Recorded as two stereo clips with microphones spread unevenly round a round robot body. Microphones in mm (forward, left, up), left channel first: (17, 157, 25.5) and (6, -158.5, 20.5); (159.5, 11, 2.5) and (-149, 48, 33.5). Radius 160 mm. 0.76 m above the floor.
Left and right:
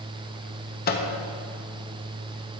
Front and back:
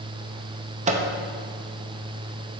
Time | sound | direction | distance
0.9 | a microwave | 115° left | 0.6 m